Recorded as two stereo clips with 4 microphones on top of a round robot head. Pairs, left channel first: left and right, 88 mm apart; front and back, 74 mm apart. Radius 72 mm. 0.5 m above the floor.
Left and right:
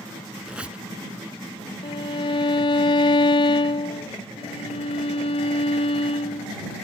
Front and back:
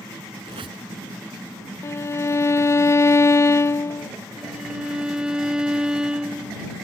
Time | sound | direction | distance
0.4 | a squeak | 170° right | ?
1.8 | a violin | 50° left | ?
4.4 | a violin | 100° left | ?